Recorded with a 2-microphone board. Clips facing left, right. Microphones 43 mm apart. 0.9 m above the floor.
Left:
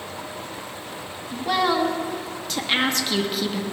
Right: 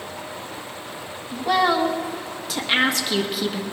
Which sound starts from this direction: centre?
A woman speaking, at 1.3 s.